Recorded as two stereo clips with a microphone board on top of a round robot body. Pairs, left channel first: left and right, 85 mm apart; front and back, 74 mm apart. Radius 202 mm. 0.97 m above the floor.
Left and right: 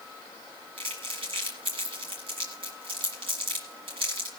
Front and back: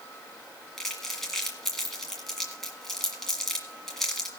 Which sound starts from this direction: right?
Crumpling, at 0.8 s.